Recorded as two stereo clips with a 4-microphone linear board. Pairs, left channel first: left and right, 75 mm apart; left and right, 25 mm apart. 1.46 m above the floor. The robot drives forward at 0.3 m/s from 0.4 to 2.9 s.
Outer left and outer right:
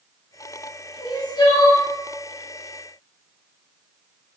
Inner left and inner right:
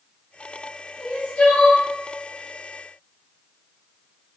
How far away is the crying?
About 1.1 m.